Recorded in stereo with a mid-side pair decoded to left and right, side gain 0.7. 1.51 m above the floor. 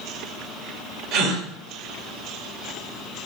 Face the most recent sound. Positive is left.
turn(degrees=-60)